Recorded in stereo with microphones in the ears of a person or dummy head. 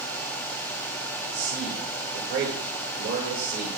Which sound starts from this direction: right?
A man speaking, at 1.3 s.